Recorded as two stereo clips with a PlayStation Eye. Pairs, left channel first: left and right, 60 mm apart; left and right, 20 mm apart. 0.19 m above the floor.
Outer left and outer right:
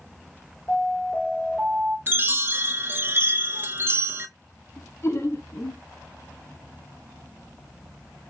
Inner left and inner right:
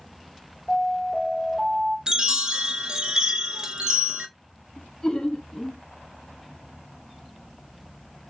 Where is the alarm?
15° left (ahead or behind), 2.5 m.